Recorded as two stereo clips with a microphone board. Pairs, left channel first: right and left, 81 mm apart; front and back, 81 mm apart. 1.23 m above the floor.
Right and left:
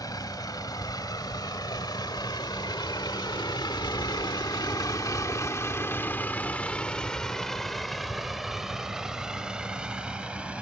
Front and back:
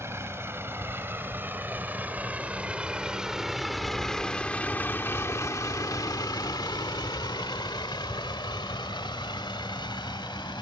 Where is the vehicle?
125° right; by 10.6 s 15° left.